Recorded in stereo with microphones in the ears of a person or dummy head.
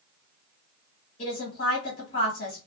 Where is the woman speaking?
55° left (ahead or behind), 1.4 m.